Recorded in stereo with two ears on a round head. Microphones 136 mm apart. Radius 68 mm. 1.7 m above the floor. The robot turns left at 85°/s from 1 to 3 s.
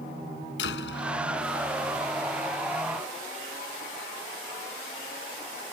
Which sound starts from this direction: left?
A door slam, at 0.6 s.